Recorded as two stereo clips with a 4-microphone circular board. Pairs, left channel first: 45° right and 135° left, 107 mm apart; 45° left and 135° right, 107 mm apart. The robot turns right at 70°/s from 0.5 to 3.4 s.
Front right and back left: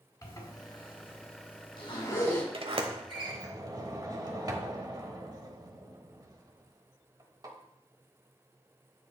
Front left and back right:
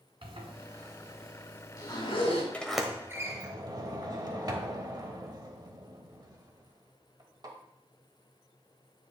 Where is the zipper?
100° right, 1.9 m; by 2.4 s 40° left, 1.9 m.